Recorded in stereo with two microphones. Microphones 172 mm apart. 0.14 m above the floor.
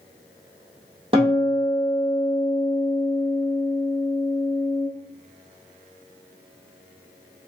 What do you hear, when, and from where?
1.1 s a guitar: 30° right (ahead or behind), 1.5 m